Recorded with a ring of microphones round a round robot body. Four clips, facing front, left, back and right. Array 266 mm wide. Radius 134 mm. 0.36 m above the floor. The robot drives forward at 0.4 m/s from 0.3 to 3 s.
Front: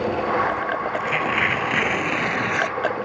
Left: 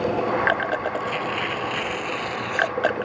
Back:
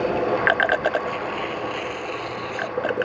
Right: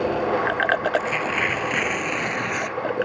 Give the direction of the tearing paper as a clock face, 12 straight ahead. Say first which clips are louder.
Right 3 dB, front 2 dB; 1 o'clock.